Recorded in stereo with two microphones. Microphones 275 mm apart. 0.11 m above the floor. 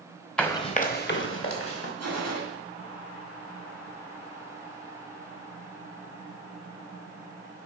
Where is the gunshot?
65° right (ahead or behind), 2.5 m.